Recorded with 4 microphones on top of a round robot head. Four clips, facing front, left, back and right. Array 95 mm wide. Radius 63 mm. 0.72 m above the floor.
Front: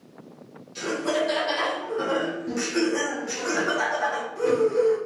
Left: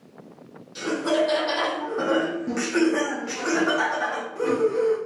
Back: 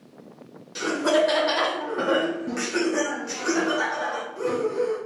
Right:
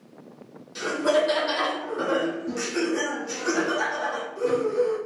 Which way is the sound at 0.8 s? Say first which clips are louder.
Right 1 dB, back 4 dB; 170° right.